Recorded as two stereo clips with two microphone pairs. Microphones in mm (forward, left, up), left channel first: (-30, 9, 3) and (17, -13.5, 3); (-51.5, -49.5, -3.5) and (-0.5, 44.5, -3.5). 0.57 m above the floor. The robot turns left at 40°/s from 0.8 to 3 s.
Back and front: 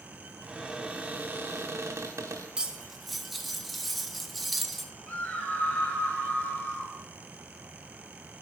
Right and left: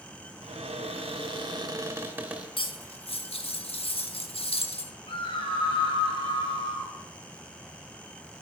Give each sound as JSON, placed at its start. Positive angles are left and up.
{"t": 0.4, "sound": "a cupboard door", "azimuth_deg": 45, "distance_m": 0.8}
{"t": 2.6, "sound": "cutlery clinking", "azimuth_deg": -95, "distance_m": 0.6}
{"t": 5.1, "sound": "a scream", "azimuth_deg": -145, "distance_m": 1.9}